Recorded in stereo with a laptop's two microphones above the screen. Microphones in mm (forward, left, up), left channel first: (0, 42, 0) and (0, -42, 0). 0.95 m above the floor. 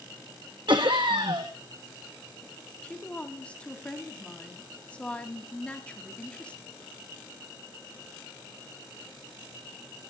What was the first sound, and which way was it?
Laughter, 65° right (ahead or behind).